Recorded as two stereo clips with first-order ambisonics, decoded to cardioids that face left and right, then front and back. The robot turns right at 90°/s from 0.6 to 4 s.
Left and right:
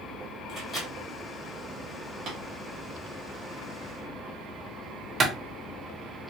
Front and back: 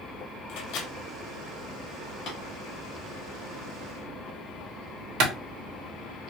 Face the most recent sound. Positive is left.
turn(degrees=-150)